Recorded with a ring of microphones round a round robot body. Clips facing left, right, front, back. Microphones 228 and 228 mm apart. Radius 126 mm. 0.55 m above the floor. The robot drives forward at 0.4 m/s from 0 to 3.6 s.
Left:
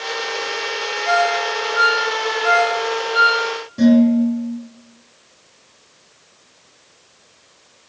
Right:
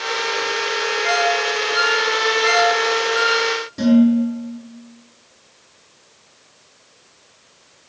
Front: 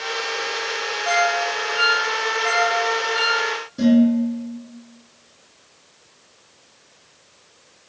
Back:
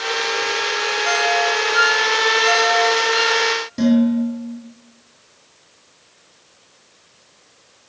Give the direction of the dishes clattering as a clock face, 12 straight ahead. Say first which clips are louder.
Left 1 dB, even; 6 o'clock.